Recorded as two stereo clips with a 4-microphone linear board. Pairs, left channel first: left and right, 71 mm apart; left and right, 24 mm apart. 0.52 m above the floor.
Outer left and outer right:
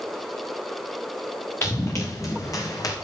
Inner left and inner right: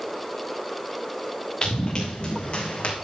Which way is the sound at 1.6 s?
40° left (ahead or behind).